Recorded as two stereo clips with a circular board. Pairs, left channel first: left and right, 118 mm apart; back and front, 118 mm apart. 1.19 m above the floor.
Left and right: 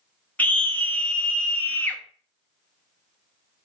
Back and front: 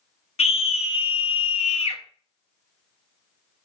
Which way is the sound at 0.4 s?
165° left.